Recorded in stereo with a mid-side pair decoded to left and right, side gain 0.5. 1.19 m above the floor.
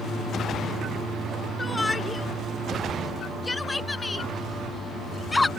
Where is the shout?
20° left; by 5.5 s 15° left.